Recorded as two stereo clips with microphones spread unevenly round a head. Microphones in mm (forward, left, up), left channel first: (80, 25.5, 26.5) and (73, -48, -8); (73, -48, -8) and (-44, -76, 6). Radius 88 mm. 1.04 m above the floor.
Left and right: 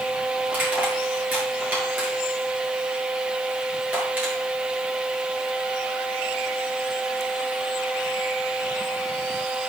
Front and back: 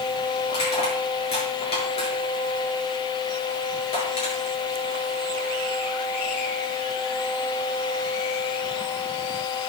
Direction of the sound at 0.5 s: 25° right.